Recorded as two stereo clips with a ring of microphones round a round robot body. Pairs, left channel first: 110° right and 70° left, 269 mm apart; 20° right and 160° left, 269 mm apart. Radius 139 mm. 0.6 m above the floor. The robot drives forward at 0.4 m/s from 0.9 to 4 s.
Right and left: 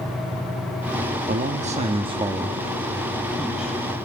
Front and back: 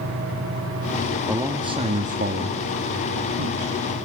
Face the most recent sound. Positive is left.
turn(degrees=160)